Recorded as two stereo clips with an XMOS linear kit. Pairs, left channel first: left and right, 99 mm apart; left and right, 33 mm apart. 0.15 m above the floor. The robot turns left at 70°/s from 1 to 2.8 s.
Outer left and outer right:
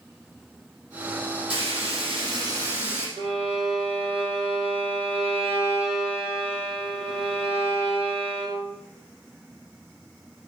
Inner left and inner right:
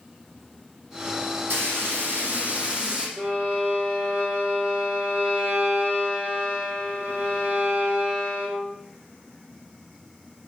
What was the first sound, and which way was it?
Frying, 65° right.